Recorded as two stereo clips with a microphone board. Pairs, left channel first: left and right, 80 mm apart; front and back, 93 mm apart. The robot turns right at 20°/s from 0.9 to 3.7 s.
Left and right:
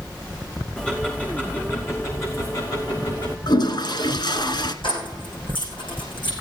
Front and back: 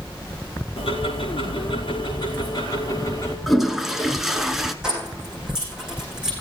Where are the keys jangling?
100° left, 7 m.